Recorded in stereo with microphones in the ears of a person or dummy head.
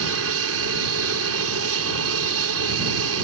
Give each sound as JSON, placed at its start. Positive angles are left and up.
{"t": 0.0, "sound": "an aircraft", "side_deg": -65}